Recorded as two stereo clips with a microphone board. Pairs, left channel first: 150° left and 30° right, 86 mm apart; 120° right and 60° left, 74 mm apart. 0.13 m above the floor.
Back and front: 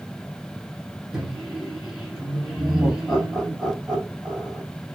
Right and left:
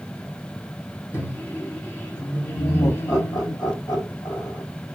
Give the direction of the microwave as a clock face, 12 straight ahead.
4 o'clock.